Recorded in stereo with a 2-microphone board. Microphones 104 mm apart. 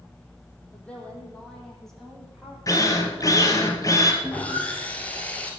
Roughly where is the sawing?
Centre.